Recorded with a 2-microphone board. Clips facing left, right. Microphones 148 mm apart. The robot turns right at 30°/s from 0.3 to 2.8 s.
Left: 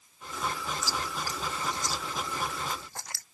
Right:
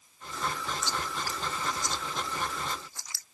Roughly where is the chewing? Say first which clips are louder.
Even; centre.